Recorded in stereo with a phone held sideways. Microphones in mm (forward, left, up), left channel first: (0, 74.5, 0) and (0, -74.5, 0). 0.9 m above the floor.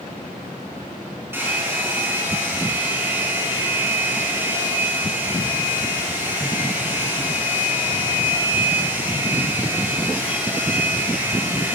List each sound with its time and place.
1.3 s a hair dryer: 15° right (ahead or behind), 4.5 m